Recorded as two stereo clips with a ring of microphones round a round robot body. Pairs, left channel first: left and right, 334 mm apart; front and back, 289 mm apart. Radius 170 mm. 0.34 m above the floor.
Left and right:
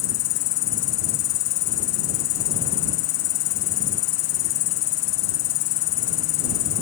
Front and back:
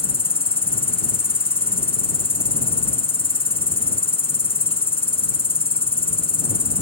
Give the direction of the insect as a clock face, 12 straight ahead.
10 o'clock.